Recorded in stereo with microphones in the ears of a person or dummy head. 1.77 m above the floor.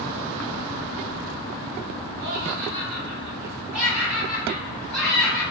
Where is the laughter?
50° right (ahead or behind), 0.5 m; by 5.4 s centre (ahead or behind), 1.9 m.